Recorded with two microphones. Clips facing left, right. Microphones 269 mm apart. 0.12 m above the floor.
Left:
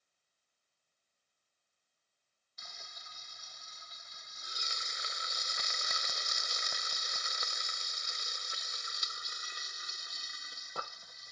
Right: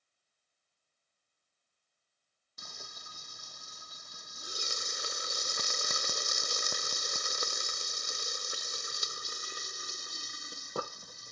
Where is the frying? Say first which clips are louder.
Right 6 dB; 55° right (ahead or behind).